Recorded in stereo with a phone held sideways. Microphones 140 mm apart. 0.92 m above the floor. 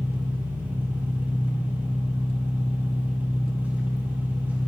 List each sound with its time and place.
0.0 s an engine running: 15° right (ahead or behind), 1.7 m